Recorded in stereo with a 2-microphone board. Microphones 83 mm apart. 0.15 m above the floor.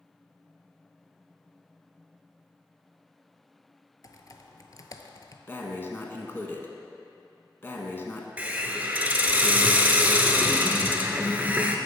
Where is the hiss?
20° right (ahead or behind), 0.7 m.